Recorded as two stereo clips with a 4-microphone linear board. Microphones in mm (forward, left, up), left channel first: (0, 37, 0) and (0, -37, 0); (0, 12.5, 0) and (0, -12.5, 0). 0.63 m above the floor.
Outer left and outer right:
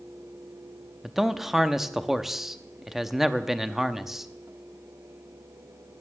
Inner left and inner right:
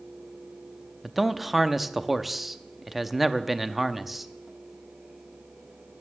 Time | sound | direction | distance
1.0 | a man speaking | 5° right (ahead or behind) | 0.6 m